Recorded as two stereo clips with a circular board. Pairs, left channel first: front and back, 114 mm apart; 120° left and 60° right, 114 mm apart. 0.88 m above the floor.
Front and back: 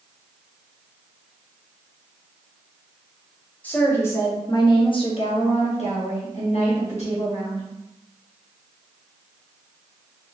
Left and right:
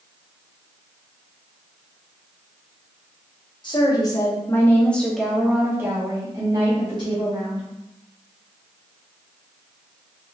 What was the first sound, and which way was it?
A woman speaking, 75° left.